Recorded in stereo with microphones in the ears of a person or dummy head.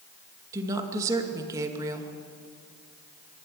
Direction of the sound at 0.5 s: 20° right (ahead or behind).